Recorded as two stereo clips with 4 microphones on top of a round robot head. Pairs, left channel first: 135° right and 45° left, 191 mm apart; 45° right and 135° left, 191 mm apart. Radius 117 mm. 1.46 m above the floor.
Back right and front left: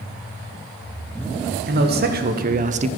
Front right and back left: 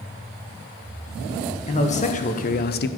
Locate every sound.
1.7 s a man speaking: 10° left, 1.5 m; by 2.9 s 15° right, 0.6 m